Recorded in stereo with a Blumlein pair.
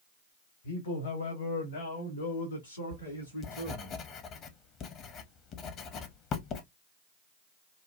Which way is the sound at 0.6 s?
65° left.